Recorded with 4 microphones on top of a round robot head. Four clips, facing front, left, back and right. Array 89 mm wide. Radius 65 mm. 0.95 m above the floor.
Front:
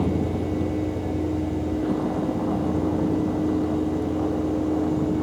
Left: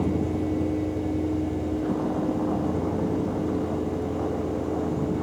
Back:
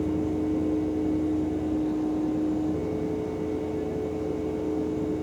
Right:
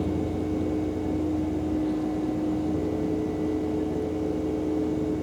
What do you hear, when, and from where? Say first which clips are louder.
0.0 s a vehicle: left 2 dB, front 2 dB; 30° left; by 5.2 s 45° left